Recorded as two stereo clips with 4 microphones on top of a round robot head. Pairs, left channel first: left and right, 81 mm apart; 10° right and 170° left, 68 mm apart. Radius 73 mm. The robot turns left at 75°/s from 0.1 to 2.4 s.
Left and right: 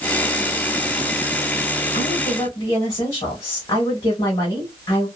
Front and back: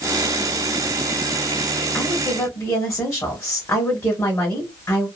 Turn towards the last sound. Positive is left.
turn(degrees=35)